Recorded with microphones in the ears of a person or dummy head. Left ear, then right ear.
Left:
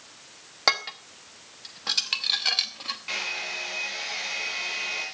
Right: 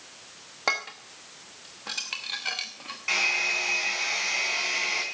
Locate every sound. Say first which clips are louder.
0.7 s dishes clattering: left 4 dB; 15° left (ahead or behind), 1.1 m
3.1 s a hair dryer: right 8 dB; 20° right (ahead or behind), 3 m